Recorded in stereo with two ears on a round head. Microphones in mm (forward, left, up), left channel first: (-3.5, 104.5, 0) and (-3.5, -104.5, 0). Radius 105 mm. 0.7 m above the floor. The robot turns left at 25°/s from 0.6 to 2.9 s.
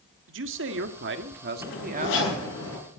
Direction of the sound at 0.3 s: 100° right.